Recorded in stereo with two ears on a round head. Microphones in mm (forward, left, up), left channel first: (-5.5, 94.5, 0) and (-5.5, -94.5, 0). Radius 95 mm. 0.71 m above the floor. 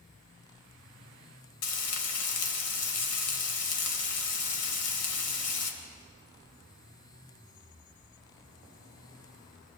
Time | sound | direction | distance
1.6 | frying | 80° left | 3 m